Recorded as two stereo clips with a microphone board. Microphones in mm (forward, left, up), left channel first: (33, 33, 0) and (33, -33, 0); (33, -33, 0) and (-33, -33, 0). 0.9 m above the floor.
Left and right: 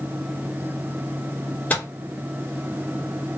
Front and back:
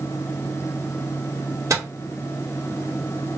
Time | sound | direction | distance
1.7 | a microwave | 155° left | 1.1 m